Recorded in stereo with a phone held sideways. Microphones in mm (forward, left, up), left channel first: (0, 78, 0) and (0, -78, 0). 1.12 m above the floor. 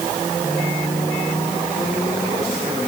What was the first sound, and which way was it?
Only background noise.